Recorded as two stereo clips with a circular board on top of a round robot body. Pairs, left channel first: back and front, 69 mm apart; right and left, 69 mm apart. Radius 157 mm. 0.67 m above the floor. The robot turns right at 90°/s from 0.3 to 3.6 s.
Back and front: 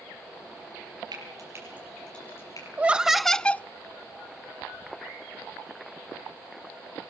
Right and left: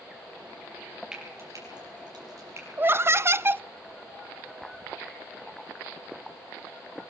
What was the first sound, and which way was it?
Frying, 10° left.